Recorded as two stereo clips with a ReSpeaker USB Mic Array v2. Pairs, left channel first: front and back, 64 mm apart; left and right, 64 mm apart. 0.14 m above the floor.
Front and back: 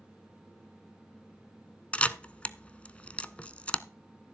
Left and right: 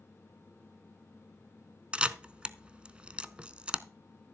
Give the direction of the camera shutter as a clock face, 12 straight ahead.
1 o'clock.